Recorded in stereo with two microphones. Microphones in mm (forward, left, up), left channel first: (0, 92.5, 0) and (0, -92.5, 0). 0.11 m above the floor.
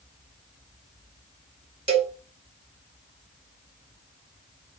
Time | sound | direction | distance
1.9 | a cowbell | 35° right (ahead or behind) | 0.8 m